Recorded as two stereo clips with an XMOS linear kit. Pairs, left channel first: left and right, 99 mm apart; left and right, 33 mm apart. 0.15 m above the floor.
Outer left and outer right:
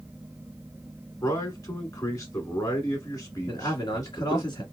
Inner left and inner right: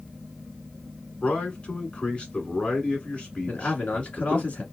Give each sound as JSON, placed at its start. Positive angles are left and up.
{"t": 1.2, "sound": "a man speaking", "side_deg": 35, "distance_m": 1.2}
{"t": 3.5, "sound": "a man speaking", "side_deg": 45, "distance_m": 1.4}